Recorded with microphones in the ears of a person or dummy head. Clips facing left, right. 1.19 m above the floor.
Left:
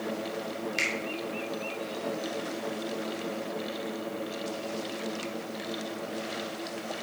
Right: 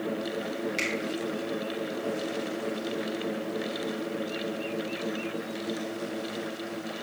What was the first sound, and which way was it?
A finger snap, 5° left (ahead or behind).